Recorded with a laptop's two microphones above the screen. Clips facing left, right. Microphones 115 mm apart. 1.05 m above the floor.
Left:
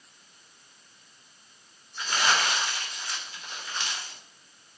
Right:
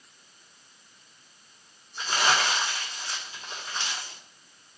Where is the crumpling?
25° right (ahead or behind), 3.5 m.